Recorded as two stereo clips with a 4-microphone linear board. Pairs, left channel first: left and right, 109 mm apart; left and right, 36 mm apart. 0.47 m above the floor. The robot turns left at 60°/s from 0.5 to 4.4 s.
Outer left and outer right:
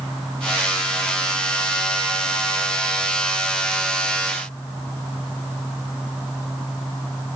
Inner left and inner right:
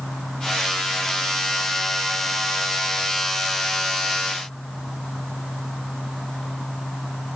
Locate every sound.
Only background noise.